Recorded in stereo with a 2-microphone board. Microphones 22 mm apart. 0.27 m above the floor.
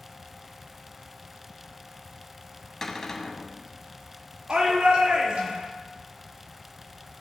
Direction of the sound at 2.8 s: 15° left (ahead or behind).